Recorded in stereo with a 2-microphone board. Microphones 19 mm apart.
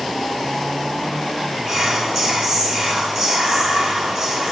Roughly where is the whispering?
Centre.